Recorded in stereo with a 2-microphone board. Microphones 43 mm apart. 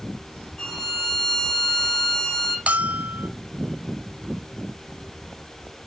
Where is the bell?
35° right (ahead or behind), 0.7 m.